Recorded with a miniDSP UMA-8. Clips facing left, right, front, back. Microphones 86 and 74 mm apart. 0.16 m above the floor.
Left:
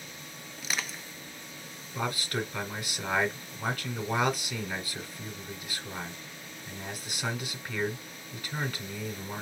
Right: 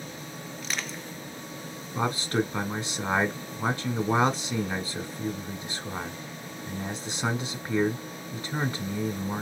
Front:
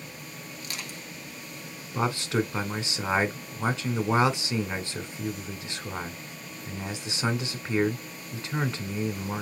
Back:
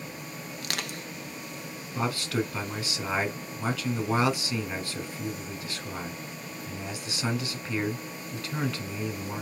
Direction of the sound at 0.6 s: Straight behind.